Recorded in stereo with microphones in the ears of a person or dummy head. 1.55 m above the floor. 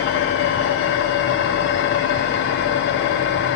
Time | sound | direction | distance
0.0 | an engine running | 65° left (ahead or behind) | 0.7 m